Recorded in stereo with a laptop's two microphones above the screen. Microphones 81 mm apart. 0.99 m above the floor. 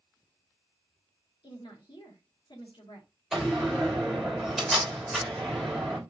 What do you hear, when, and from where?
1.4 s a woman speaking: 85° left, 1.6 m
3.3 s a door slam: 10° right (ahead or behind), 3 m